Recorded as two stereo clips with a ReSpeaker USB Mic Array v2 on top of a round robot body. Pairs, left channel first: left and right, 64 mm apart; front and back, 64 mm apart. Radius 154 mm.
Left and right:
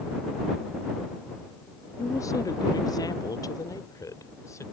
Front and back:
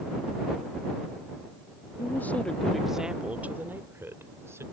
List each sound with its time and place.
2.0 s a woman speaking: 50° left; by 4.6 s 130° left